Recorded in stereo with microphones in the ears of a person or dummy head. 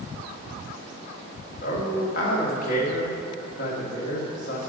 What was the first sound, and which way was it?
A man speaking, 55° left (ahead or behind).